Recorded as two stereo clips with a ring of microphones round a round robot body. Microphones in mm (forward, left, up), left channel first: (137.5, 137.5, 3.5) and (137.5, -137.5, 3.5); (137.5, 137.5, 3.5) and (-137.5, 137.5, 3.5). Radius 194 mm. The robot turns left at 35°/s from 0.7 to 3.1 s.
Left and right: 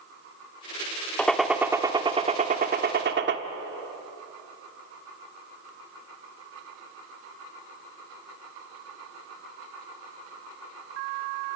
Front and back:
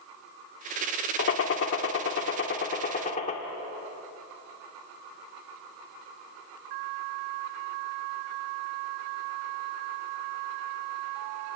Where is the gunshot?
5° left, 1.5 m; by 3.4 s 60° right, 1.5 m.